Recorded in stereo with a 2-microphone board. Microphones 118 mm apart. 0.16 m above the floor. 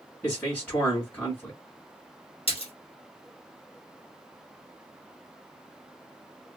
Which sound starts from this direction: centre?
A man speaking, at 0.2 s.